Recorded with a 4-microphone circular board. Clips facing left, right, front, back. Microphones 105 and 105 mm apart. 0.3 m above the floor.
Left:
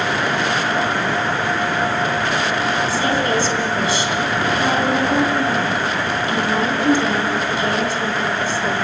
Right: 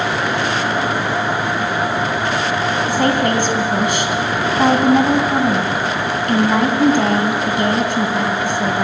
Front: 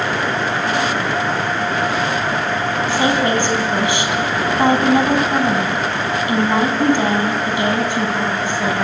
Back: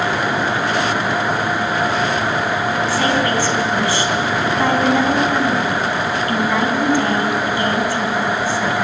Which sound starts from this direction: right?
A woman speaking, at 2.9 s.